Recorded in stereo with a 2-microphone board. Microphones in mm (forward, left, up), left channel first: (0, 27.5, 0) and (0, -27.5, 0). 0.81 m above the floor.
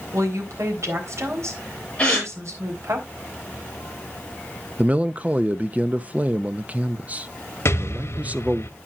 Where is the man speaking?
30° right (ahead or behind), 0.6 m.